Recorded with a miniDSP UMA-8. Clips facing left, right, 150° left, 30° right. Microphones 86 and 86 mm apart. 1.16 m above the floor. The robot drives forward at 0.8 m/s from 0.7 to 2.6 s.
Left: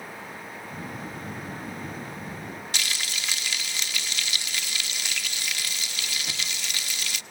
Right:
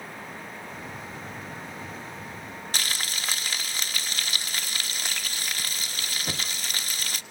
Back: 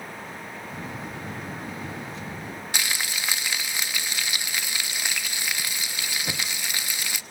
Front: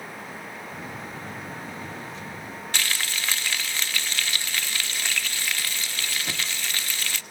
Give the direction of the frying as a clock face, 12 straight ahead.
4 o'clock.